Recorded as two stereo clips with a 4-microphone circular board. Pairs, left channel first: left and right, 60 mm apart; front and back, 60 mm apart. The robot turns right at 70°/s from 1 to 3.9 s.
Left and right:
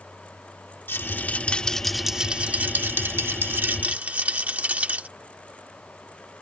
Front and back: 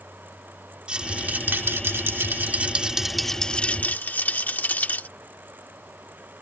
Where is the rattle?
115° left; by 5.1 s 40° right.